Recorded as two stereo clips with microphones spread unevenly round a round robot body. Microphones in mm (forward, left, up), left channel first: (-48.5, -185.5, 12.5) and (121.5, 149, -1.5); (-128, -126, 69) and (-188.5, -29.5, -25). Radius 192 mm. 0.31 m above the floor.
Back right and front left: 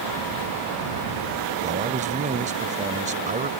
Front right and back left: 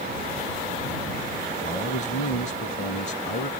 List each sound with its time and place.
1.6 s a man speaking: 10° left